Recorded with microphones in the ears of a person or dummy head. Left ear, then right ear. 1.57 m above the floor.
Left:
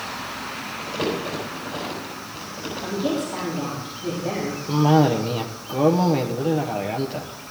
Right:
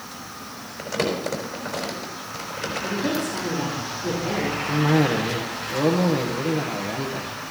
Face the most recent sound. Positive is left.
turn(degrees=25)  # may be behind; listen again after turning